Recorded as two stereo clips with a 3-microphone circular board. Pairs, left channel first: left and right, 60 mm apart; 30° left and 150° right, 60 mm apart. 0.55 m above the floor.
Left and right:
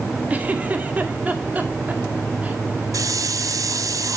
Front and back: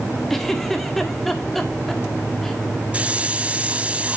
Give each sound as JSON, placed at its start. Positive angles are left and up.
{"t": 0.3, "sound": "a giggle", "azimuth_deg": -50, "distance_m": 1.4}
{"t": 2.9, "sound": "a hiss", "azimuth_deg": -80, "distance_m": 0.8}